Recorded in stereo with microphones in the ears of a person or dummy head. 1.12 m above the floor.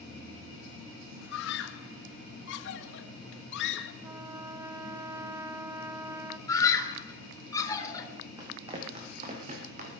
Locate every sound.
1.3 s a scream: 70° left (ahead or behind), 1.5 m
4.0 s a trumpet: 20° right (ahead or behind), 0.5 m
6.5 s a scream: 20° left (ahead or behind), 3 m
8.4 s running footsteps: 25° right (ahead or behind), 3.5 m; by 10.0 s 45° right (ahead or behind), 3.5 m